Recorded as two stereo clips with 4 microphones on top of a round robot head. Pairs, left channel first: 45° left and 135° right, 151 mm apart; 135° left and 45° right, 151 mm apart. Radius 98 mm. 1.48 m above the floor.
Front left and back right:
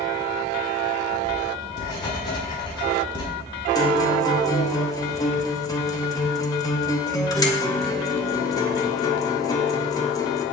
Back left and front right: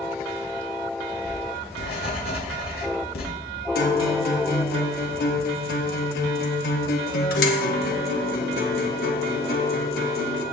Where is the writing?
105° left, 4.5 m.